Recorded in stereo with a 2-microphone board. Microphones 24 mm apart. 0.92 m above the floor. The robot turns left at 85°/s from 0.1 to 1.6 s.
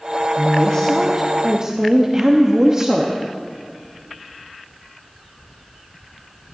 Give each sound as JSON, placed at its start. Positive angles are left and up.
{"t": 0.4, "sound": "a woman speaking", "azimuth_deg": 70, "distance_m": 1.2}